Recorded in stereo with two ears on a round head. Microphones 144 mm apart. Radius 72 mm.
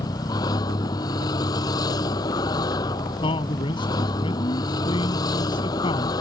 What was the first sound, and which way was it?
A vehicle, 25° left (ahead or behind).